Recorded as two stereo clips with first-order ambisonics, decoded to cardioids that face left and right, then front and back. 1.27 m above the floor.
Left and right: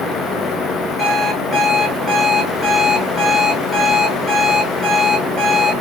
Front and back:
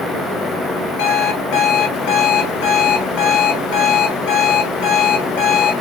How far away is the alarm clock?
About 1.1 m.